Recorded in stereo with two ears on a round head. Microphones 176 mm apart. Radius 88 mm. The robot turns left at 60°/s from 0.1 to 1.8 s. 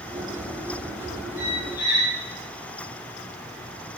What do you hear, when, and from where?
1.4 s a squeak: centre (ahead or behind), 2 m; by 2.2 s 25° left (ahead or behind), 2 m